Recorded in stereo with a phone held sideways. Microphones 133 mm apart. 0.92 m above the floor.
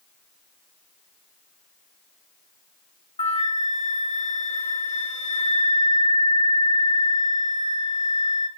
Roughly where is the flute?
Left.